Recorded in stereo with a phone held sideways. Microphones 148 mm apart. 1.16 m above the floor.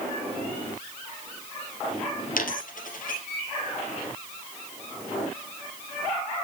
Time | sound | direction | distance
2.4 | a dropped coin | 65° left (ahead or behind) | 2.5 m